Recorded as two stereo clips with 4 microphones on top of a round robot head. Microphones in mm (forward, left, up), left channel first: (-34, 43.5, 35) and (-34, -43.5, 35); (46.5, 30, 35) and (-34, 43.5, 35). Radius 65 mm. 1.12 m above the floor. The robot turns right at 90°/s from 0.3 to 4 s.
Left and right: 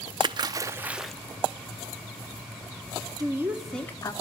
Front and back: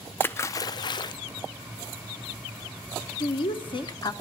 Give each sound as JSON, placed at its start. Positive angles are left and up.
{"t": 0.2, "sound": "a splash", "azimuth_deg": -70, "distance_m": 0.5}
{"t": 3.2, "sound": "a woman speaking", "azimuth_deg": -45, "distance_m": 1.0}